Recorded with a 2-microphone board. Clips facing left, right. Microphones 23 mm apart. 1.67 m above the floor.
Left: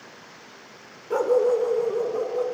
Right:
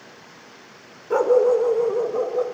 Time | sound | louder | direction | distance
1.1 | a dog barking | right 4 dB | 15° right (ahead or behind) | 1.4 m